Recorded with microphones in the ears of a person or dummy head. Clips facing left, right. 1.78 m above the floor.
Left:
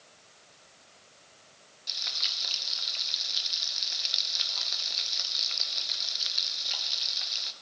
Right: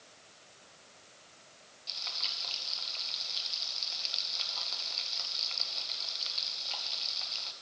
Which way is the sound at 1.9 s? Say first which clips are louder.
Even; 20° left (ahead or behind).